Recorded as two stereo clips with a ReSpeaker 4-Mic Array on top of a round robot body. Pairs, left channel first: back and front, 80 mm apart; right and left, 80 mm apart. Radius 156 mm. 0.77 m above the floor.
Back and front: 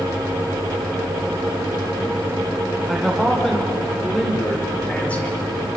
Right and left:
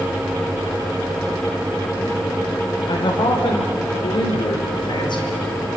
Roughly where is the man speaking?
Right.